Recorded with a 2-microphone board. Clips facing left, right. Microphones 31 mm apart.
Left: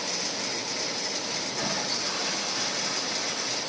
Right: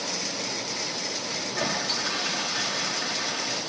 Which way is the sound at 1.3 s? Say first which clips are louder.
Right 4 dB; 60° right (ahead or behind).